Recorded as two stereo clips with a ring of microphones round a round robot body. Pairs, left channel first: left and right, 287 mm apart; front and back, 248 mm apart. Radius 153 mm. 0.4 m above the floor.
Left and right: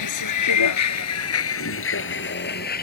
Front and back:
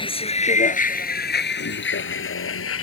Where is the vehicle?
70° left; by 2.8 s 30° left.